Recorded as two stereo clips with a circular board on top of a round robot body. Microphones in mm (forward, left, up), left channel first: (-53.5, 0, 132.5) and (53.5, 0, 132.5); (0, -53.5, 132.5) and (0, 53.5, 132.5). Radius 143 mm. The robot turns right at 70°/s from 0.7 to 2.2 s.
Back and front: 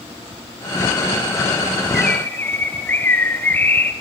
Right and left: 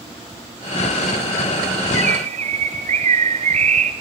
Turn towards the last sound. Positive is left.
turn(degrees=105)